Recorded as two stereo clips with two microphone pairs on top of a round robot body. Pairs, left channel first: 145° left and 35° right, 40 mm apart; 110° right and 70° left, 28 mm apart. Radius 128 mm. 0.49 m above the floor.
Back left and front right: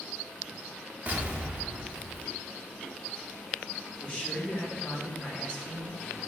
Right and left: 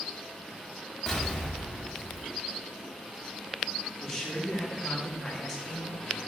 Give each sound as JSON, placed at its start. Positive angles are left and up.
{"t": 1.1, "sound": "an explosion", "azimuth_deg": -50, "distance_m": 1.1}
{"t": 4.0, "sound": "a man speaking", "azimuth_deg": -165, "distance_m": 1.4}